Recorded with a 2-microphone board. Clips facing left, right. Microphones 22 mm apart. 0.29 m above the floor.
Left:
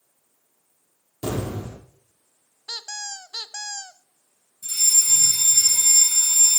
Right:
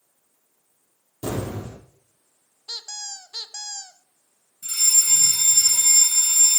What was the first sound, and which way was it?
An explosion, 20° left (ahead or behind).